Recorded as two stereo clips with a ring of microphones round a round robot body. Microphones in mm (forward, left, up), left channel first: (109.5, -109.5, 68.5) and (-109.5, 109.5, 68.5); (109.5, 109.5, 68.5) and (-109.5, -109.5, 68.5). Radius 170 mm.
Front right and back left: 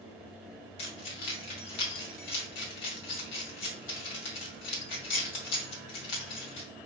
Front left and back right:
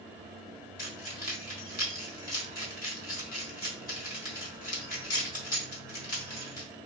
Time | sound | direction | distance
0.8 | keys jangling | 20° right | 2.5 m